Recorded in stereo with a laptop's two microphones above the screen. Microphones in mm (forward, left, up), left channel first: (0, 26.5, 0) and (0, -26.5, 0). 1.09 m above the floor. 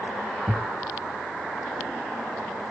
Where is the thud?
25° right (ahead or behind), 1.1 m.